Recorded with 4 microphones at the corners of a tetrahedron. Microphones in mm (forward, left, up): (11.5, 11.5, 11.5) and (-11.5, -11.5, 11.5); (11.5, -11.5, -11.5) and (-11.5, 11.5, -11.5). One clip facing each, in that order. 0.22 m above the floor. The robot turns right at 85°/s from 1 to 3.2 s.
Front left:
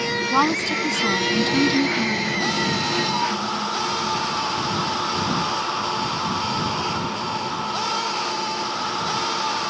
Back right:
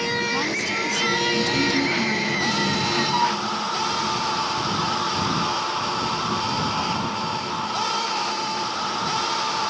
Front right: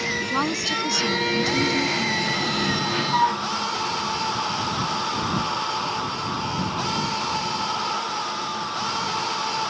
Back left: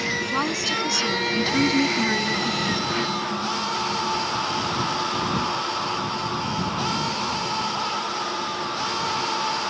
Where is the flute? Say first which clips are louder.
Back right 2 dB, front right 6 dB; 65° right; by 3.4 s 60° right.